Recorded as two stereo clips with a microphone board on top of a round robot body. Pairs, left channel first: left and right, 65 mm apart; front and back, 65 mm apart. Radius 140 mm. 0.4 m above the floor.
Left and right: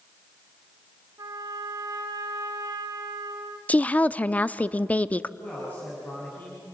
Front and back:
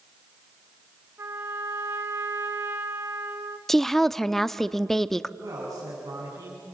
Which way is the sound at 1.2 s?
130° right.